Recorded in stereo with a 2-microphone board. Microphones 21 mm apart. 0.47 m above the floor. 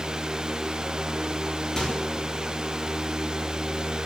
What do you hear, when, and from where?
1.8 s a microwave: 35° left (ahead or behind), 7 m